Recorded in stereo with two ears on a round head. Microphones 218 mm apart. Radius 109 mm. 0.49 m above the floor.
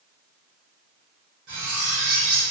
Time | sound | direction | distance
1.5 | cutlery clinking | 45° right (ahead or behind) | 1.0 m